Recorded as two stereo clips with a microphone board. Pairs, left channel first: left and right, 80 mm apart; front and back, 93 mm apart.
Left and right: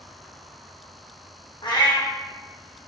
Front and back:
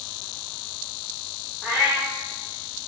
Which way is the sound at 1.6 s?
100° left.